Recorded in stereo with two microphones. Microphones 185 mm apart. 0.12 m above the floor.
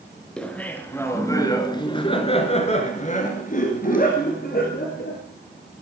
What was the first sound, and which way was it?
Laughter, 5° left (ahead or behind).